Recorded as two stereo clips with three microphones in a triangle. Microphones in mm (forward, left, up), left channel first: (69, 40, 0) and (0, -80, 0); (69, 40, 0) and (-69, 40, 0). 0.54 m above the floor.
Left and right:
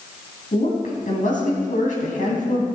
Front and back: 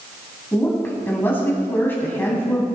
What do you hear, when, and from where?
0.5 s a woman speaking: 75° left, 4 m